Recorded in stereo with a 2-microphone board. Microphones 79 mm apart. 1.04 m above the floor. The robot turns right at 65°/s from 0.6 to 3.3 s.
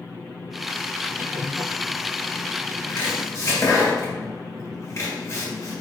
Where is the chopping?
65° left (ahead or behind), 1.6 m; by 5.8 s 40° left (ahead or behind), 1.6 m.